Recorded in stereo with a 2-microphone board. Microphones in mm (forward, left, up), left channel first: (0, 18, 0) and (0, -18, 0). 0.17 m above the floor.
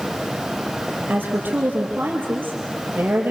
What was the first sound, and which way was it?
A woman speaking, 65° right (ahead or behind).